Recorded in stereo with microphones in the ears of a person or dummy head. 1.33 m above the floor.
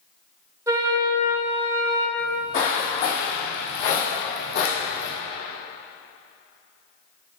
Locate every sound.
0.7 s a flute: 10° right (ahead or behind), 1.7 m
2.2 s footsteps: 35° left (ahead or behind), 1.9 m; by 5.1 s 50° left (ahead or behind), 2.5 m